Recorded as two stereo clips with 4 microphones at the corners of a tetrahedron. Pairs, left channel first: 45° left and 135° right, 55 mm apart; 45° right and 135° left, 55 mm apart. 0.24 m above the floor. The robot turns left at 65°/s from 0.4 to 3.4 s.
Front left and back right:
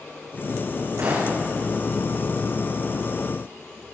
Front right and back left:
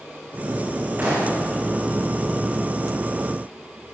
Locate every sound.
1.0 s a gunshot: 160° right, 9 m; by 1.4 s 175° left, 9 m